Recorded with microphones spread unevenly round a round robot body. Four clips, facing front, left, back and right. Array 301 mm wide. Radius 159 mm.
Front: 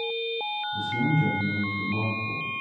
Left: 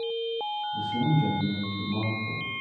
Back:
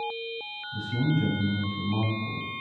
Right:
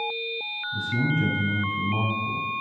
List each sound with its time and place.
0.7 s a man speaking: 110° right, 3 m